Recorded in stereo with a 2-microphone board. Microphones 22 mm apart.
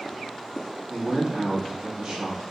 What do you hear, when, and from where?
0.9 s a man speaking: 35° right (ahead or behind), 1.5 m